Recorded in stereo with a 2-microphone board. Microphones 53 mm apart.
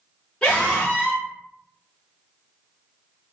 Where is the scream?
15° left (ahead or behind), 1.1 m.